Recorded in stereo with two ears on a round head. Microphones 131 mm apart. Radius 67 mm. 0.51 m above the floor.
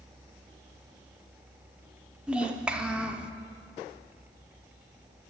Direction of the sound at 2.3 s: 10° right (ahead or behind).